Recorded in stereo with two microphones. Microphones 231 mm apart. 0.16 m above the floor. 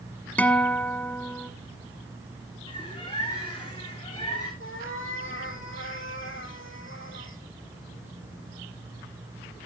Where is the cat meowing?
60° left (ahead or behind), 2.5 m.